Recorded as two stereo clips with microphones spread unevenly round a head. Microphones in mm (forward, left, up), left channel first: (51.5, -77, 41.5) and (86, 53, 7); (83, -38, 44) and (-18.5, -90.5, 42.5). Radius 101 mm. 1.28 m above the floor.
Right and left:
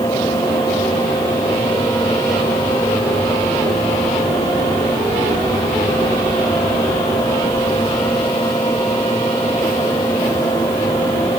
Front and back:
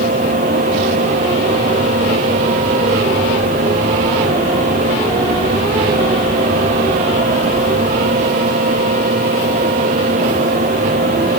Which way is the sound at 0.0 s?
Straight behind.